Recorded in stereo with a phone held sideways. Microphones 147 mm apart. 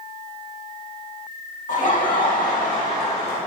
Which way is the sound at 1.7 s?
60° left (ahead or behind).